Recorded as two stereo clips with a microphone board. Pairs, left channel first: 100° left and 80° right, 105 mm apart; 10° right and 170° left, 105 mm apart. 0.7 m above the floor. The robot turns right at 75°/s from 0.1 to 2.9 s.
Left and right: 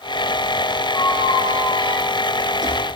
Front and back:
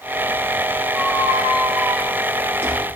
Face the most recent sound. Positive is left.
turn(degrees=-105)